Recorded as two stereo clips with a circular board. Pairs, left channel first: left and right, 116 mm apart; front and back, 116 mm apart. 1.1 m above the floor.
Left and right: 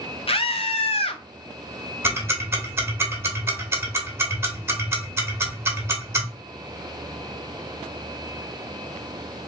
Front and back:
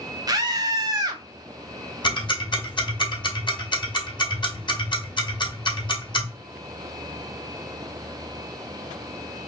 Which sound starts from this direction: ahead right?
Ticking, at 2.0 s.